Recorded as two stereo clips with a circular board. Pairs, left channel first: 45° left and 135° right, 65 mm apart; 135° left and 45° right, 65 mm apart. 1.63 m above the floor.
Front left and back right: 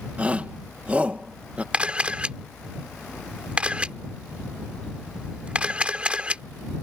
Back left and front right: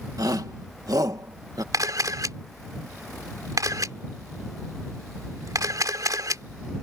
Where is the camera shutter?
65° right.